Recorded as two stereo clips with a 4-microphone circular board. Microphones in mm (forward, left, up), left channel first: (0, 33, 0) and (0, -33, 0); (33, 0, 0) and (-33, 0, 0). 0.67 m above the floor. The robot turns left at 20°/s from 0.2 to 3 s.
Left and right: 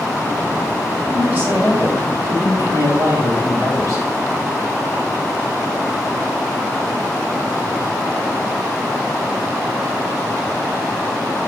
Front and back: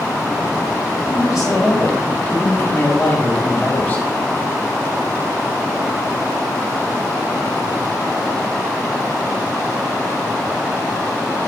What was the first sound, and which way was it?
A man speaking, 35° right.